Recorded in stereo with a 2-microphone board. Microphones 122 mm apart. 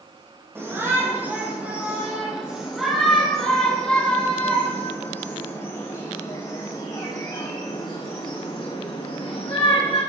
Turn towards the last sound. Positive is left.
turn(degrees=50)  # may be behind; listen again after turning